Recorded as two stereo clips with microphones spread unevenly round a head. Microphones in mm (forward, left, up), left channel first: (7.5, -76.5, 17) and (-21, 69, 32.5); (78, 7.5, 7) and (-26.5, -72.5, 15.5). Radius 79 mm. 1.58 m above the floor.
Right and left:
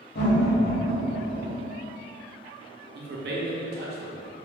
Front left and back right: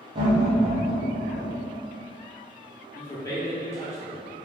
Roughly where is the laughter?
Right.